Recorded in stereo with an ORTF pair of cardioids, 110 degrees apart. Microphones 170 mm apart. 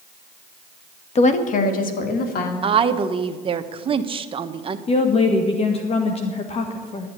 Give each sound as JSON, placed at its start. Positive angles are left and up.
{"t": 1.1, "sound": "a woman speaking", "azimuth_deg": 40, "distance_m": 1.5}
{"t": 2.6, "sound": "a woman speaking", "azimuth_deg": -35, "distance_m": 1.1}
{"t": 4.9, "sound": "a woman speaking", "azimuth_deg": 35, "distance_m": 1.6}